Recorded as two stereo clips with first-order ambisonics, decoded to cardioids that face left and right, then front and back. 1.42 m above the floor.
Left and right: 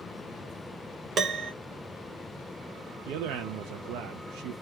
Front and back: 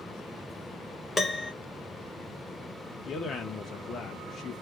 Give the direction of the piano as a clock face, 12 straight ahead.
2 o'clock.